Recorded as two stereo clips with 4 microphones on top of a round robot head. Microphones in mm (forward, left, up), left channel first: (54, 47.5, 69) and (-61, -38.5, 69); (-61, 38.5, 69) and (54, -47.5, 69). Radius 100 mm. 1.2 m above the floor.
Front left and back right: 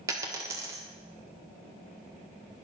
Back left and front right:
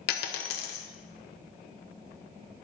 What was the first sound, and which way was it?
A dropped coin, 145° left.